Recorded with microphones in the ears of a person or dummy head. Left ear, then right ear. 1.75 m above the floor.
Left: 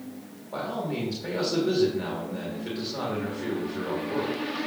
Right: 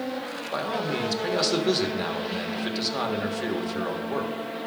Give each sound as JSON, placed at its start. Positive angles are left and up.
{"t": 0.5, "sound": "a man speaking", "side_deg": -50, "distance_m": 1.4}